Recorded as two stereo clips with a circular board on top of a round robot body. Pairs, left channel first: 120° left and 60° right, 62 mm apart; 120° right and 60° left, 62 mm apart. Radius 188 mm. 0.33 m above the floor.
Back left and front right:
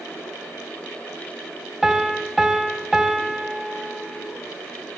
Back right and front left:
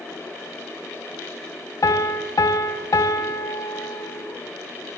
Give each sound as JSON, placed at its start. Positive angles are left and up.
{"t": 1.8, "sound": "a piano", "azimuth_deg": -145, "distance_m": 2.0}